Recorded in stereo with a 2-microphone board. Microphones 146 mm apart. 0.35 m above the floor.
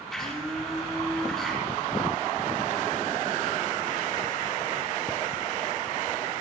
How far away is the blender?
About 9.5 m.